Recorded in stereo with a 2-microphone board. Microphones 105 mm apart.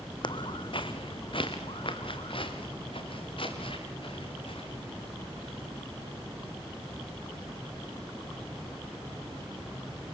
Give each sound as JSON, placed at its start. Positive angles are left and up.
{"t": 0.2, "sound": "footsteps", "side_deg": 50, "distance_m": 1.4}